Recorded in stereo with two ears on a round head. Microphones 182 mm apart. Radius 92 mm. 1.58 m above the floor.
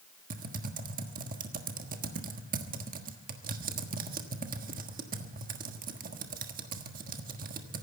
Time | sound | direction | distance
0.3 | typing on a keyboard | 45° right (ahead or behind) | 1.4 m